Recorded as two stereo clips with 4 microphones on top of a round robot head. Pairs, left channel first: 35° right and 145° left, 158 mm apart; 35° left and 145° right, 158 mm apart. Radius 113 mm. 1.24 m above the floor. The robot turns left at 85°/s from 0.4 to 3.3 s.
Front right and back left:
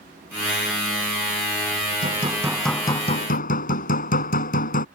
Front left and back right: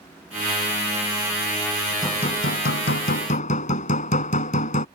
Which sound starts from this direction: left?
Hammering, at 2.0 s.